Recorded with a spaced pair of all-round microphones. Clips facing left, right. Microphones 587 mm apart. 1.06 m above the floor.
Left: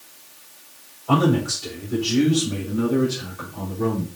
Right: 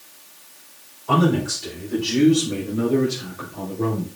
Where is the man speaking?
5° left (ahead or behind), 5.5 m; by 4.1 s 20° left (ahead or behind), 4.5 m.